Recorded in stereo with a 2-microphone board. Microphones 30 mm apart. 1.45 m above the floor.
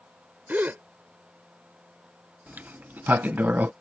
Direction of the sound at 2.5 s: 80° right.